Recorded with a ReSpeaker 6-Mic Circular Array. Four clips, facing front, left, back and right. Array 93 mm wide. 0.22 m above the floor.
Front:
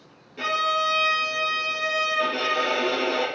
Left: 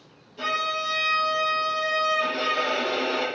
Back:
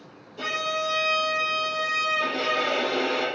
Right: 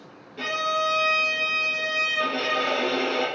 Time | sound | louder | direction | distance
0.4 | a violin | right 2 dB, front 4 dB | 35° right | 1.1 m